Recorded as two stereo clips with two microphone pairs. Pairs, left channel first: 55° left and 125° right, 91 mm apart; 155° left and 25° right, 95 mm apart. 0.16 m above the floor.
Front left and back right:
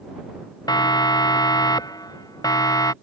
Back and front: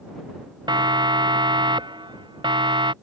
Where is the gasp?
I don't hear a gasp.